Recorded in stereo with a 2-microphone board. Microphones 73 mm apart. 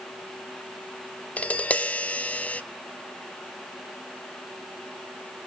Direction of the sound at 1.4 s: 20° left (ahead or behind).